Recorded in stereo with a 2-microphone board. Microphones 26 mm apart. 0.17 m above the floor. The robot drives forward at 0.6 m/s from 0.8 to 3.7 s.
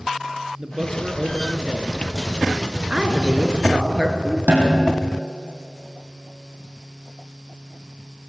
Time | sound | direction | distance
0.6 | a man speaking | 30° right (ahead or behind) | 2.5 m
2.9 | a woman speaking | 30° right (ahead or behind) | 3 m
4.5 | a snare drum | 75° right (ahead or behind) | 4.5 m